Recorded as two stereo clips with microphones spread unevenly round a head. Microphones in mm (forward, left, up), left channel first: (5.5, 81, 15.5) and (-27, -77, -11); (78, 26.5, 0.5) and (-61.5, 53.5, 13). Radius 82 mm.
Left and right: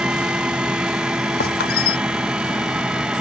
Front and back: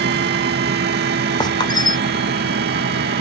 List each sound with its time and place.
0.0 s a fan: 175° left
1.4 s a squeak: 50° left